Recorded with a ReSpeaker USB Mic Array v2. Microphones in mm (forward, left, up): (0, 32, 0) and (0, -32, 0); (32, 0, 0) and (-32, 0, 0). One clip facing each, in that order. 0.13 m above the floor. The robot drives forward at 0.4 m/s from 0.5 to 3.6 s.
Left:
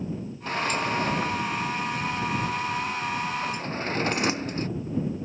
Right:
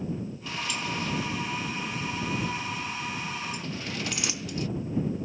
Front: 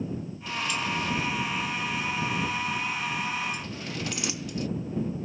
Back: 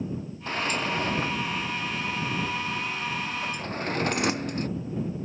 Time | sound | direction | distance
0.5 | a sliding door | 135° left | ?